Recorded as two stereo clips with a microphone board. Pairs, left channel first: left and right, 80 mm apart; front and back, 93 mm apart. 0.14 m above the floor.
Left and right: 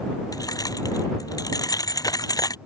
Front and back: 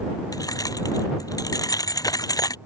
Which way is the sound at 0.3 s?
50° left.